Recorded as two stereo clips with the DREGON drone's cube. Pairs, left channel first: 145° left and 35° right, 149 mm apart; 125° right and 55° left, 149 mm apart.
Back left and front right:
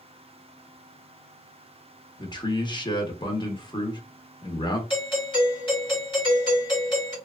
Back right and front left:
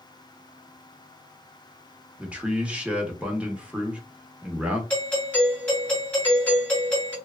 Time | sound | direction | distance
2.2 | a man speaking | 130° left | 0.8 m
4.9 | a doorbell | 165° left | 2.0 m